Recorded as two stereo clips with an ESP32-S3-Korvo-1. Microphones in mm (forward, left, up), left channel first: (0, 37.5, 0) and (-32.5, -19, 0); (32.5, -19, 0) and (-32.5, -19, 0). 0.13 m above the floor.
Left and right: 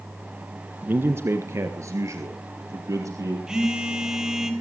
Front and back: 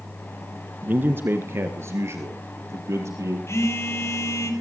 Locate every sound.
0.8 s a man speaking: 145° right, 1.3 m; by 3.4 s 140° right, 3.5 m
3.5 s a phone buzzing: 40° right, 4.5 m